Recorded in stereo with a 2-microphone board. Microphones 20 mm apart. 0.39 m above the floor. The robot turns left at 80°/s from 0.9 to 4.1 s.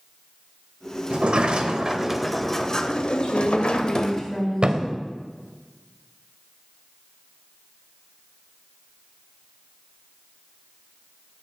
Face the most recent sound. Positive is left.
turn(degrees=-50)  # may be behind; listen again after turning